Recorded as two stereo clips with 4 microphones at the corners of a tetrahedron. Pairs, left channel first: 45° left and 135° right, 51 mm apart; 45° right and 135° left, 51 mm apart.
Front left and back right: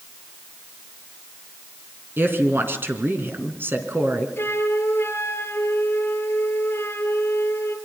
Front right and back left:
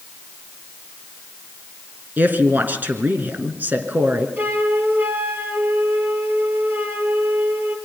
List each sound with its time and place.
2.2 s a woman speaking: 175° right, 3 m
4.4 s a flute: 85° left, 3 m